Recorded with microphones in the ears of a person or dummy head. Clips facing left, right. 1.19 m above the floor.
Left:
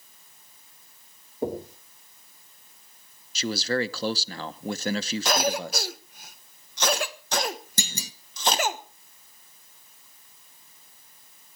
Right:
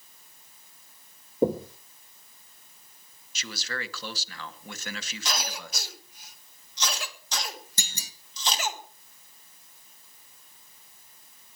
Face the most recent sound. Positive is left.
turn(degrees=65)  # may be behind; listen again after turning